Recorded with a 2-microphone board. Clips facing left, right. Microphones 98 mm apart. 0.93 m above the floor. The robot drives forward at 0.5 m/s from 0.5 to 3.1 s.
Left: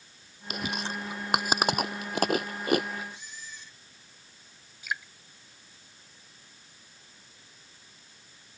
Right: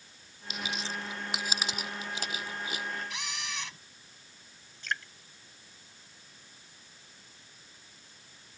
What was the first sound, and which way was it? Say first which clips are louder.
Chewing: left 3 dB; 55° left (ahead or behind).